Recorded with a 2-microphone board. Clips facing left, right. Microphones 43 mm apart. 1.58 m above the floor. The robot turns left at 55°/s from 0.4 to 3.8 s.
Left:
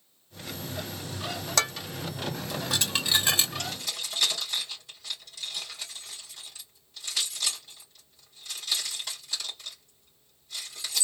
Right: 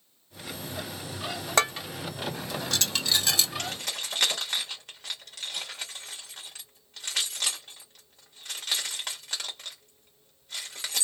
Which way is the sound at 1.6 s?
30° right (ahead or behind).